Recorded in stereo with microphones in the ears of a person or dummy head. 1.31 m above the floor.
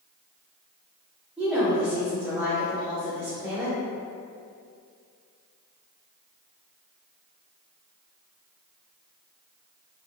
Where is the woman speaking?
10° right (ahead or behind), 1.2 m.